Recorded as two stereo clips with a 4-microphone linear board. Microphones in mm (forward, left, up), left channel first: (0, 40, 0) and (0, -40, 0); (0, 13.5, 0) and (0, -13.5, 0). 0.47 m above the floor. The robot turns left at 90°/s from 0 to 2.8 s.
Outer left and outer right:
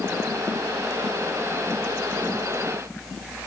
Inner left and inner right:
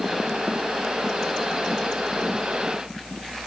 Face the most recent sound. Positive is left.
No sound to turn to.